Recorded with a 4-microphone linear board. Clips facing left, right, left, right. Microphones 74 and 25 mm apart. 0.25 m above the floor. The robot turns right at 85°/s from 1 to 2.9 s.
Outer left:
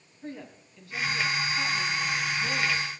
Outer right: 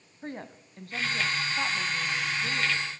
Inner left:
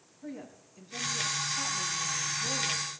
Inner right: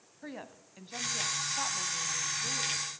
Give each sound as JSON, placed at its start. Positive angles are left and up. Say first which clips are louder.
{"t": 0.2, "sound": "a woman speaking", "louder": "outer right 1 dB, inner left 1 dB", "azimuth_deg": -95, "distance_m": 1.5}